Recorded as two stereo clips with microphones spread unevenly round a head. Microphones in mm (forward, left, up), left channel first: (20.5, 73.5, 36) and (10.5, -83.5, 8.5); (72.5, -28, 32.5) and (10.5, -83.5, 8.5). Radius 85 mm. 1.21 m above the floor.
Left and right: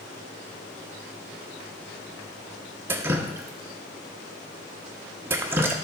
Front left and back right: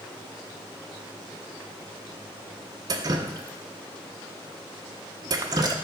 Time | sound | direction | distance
2.9 | dripping | 175° right | 0.5 m